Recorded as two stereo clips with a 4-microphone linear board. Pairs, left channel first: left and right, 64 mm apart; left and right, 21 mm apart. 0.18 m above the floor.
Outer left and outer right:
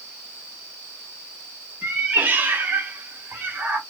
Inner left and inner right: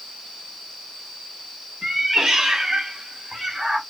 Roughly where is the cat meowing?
Right.